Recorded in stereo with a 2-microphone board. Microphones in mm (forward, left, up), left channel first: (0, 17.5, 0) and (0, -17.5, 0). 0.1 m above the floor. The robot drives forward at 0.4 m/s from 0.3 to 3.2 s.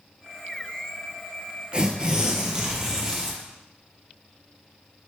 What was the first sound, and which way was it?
Tearing paper, 30° right (ahead or behind).